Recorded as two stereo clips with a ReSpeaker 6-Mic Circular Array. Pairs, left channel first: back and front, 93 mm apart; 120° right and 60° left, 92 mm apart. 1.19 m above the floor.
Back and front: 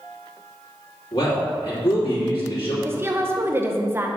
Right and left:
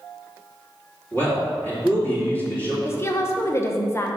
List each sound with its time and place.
1.1 s a man speaking: 170° left, 3 m
2.9 s a woman speaking: 60° right, 1.0 m